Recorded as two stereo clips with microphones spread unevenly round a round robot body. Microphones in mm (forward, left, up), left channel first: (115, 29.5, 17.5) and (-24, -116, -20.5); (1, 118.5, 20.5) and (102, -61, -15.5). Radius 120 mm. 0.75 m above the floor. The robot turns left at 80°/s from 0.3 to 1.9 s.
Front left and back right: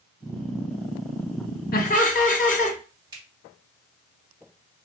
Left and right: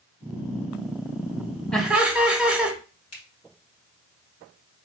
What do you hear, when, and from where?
1.7 s laughter: 25° left, 1.0 m; by 2.8 s 10° left, 1.0 m
3.1 s a finger snap: 155° left, 2 m